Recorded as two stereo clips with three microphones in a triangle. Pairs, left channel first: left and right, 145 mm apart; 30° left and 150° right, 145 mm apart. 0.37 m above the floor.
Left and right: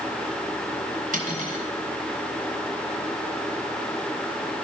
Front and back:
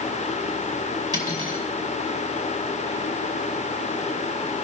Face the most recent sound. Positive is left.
turn(degrees=-90)